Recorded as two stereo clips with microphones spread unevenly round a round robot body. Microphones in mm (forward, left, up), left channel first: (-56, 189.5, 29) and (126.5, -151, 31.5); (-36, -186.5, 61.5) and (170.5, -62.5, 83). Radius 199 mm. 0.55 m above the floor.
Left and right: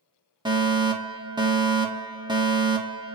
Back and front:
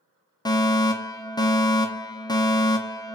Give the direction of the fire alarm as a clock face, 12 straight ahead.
4 o'clock.